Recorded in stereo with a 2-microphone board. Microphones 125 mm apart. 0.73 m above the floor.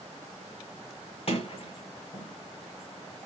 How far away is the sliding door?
About 1.3 m.